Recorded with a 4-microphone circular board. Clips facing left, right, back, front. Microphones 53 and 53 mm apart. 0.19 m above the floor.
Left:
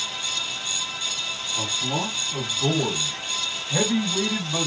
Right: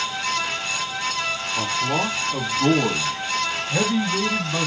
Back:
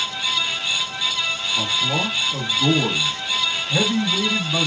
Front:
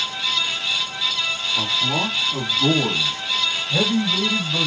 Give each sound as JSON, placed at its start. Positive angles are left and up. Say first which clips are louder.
{"t": 1.6, "sound": "a man speaking", "louder": "right 4 dB, even", "azimuth_deg": -60, "distance_m": 1.6}